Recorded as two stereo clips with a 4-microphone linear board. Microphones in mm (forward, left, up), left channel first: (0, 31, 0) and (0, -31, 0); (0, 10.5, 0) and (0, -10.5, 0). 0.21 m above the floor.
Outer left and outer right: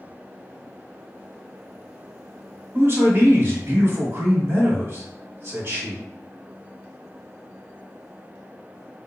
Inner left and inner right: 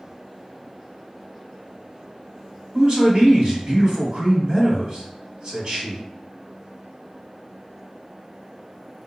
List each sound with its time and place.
2.7 s a man speaking: 40° right (ahead or behind), 1.5 m